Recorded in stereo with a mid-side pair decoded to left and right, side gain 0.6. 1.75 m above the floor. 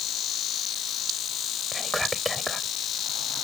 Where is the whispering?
Straight ahead.